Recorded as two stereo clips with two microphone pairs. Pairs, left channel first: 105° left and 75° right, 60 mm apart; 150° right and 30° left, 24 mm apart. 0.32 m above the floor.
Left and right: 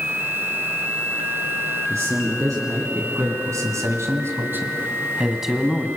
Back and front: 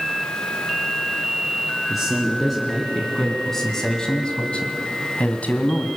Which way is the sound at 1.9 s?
50° right.